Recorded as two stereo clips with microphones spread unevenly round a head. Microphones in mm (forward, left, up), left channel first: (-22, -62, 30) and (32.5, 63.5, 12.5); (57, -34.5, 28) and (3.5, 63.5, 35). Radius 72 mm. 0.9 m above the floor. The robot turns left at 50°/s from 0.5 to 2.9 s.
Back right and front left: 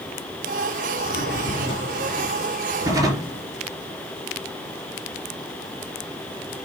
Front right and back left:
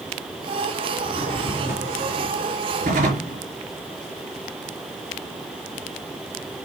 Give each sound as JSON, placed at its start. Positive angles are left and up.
{"t": 1.0, "sound": "a drawer", "azimuth_deg": -130, "distance_m": 4.0}